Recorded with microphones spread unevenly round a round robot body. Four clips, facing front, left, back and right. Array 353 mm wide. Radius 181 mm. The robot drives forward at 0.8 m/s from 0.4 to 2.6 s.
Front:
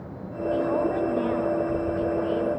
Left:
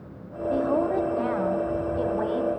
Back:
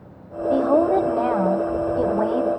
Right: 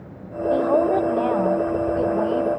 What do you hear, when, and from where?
0.5 s a woman speaking: 135° right, 1.8 m; by 2.5 s 160° right, 3 m